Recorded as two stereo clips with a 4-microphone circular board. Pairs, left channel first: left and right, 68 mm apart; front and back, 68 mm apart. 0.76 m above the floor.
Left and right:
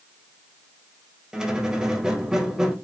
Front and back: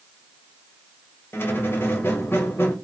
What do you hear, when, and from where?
1.3 s a squeak: 20° right, 0.6 m